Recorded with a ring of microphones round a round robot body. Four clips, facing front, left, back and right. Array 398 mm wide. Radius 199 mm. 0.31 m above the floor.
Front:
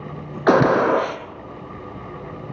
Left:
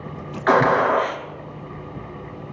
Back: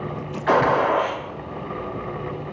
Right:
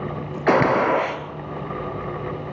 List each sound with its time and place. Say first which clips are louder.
0.5 s a gunshot: left 1 dB, front 3 dB; 20° right, 1.4 m